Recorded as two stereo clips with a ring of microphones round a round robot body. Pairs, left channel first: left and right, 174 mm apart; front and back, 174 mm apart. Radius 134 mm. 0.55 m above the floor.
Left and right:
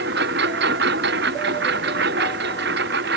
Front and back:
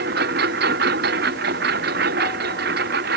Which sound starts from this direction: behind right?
A lawn mower, at 0.0 s.